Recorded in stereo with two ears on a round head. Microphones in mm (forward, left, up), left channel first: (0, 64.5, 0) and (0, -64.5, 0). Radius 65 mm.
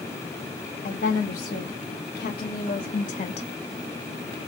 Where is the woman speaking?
75° left (ahead or behind), 2.5 m; by 3.5 s 40° left (ahead or behind), 0.6 m.